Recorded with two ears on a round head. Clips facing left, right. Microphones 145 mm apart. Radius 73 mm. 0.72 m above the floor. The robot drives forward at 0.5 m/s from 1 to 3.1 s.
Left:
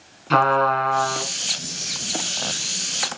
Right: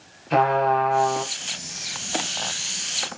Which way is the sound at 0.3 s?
85° left.